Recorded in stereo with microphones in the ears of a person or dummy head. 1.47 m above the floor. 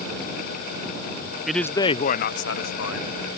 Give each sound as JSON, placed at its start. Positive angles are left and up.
{"t": 1.5, "sound": "a man speaking", "side_deg": 0}